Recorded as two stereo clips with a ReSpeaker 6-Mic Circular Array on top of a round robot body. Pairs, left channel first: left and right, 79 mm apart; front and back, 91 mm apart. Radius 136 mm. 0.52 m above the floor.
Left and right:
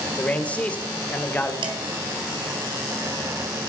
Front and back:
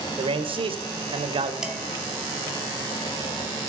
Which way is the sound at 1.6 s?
95° right.